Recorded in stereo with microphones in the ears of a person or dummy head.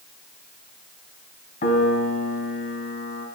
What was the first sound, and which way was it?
A piano, 40° left (ahead or behind).